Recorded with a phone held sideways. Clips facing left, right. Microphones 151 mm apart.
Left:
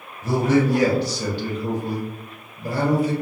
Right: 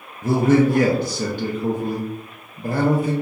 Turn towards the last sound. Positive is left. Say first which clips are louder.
# right 3 dB
turn(degrees=-45)  # may be behind; listen again after turning